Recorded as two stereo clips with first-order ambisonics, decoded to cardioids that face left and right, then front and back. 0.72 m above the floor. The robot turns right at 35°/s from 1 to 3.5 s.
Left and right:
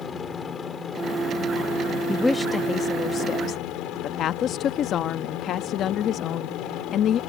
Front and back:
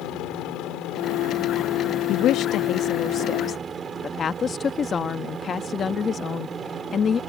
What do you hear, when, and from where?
0.0 s a helicopter: 30° left; by 7.3 s 115° left
2.1 s a woman speaking: 5° left; by 7.2 s 55° left